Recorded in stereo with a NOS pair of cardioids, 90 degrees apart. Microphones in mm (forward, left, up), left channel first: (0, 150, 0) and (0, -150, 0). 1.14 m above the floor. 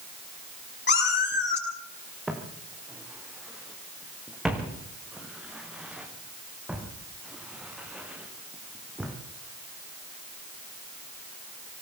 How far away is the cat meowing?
About 9 m.